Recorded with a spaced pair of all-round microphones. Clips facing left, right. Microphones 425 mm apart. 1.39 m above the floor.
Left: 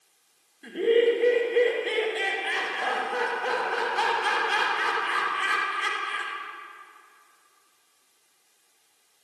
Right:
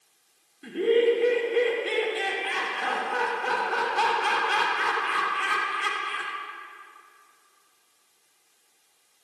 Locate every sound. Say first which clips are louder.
0.6 s laughter: even; 20° right (ahead or behind), 1.1 m